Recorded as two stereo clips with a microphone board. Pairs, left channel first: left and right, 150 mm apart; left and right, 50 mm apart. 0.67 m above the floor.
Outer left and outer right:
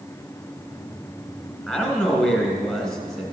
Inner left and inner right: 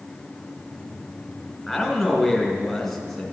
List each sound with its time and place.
1.7 s a man speaking: centre (ahead or behind), 3.5 m